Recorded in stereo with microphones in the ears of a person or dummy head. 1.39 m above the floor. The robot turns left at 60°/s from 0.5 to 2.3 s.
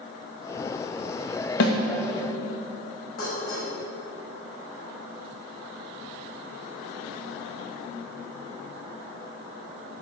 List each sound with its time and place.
1.6 s a snare drum: 70° left (ahead or behind), 1.9 m; by 1.8 s 80° left, 1.9 m
3.2 s dishes clattering: 55° left (ahead or behind), 5.5 m